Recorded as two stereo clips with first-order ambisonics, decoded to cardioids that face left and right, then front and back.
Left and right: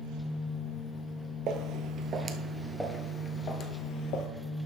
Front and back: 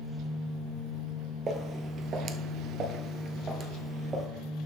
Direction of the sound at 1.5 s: 120° right.